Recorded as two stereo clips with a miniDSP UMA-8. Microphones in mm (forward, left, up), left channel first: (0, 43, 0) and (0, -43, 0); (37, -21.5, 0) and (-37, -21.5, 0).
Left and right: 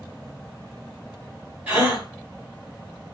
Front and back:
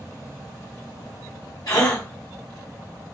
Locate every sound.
1.7 s a gasp: 25° right, 2 m